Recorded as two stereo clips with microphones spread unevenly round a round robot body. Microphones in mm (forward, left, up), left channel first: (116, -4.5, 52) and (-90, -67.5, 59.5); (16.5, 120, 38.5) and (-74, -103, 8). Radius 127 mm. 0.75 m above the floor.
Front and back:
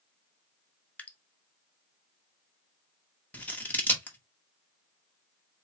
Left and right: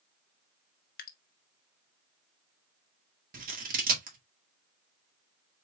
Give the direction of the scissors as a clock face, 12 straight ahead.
2 o'clock.